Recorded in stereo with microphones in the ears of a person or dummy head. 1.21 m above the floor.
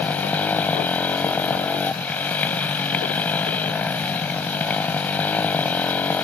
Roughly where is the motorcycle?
Centre.